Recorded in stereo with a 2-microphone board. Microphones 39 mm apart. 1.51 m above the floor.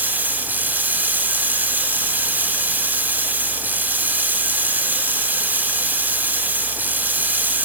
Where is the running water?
45° right (ahead or behind), 2 m.